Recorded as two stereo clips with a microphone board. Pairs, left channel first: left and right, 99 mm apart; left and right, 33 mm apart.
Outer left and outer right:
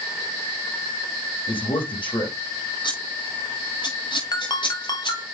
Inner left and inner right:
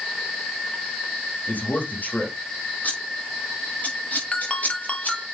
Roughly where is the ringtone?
Left.